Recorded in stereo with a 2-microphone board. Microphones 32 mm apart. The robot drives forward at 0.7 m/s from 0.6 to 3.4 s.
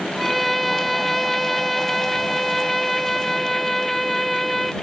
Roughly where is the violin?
Centre.